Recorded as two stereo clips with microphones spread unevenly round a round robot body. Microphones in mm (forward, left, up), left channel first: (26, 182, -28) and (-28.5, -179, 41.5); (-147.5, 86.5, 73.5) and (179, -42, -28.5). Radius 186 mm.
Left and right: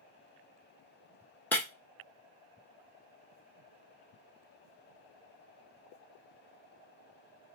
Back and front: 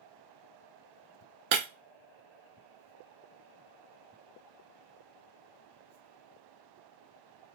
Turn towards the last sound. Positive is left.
turn(degrees=-10)